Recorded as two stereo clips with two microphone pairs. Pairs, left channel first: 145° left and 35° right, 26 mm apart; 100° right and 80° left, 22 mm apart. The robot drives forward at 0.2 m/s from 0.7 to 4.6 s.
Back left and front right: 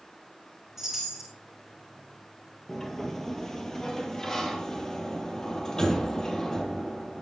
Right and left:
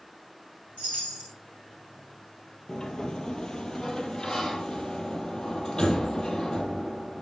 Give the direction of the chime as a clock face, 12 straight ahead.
4 o'clock.